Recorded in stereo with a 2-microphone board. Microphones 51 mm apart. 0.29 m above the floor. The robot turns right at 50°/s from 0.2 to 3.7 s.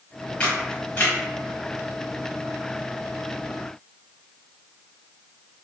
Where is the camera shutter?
20° left (ahead or behind), 1.5 m; by 1.2 s 45° left (ahead or behind), 1.5 m.